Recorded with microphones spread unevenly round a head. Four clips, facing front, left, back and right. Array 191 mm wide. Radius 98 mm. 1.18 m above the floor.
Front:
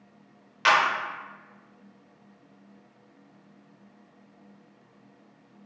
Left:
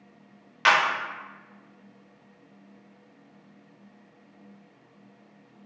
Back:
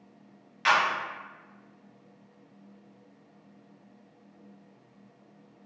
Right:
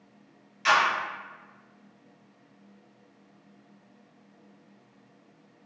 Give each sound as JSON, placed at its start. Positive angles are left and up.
{"t": 0.7, "sound": "a clap", "azimuth_deg": 55, "distance_m": 0.8}